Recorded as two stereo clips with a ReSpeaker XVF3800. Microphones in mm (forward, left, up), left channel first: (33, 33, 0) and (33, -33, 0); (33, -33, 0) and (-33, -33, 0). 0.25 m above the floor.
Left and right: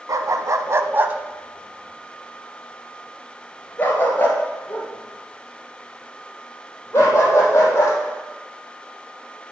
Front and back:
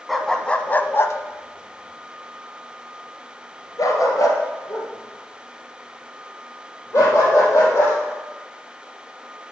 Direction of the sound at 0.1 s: 85° right.